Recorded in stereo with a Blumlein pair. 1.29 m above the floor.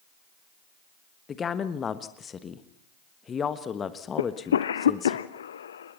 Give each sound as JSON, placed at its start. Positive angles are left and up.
{"t": 1.3, "sound": "a woman speaking", "azimuth_deg": 20, "distance_m": 1.4}
{"t": 4.2, "sound": "a cough", "azimuth_deg": 65, "distance_m": 0.8}